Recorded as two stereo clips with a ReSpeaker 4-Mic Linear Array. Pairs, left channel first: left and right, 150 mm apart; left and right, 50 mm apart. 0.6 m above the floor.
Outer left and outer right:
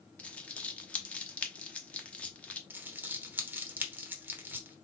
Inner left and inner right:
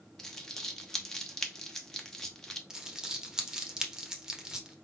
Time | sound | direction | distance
0.2 | crumpling | 10° left (ahead or behind) | 0.9 m
2.7 | crumpling | 15° right (ahead or behind) | 1.0 m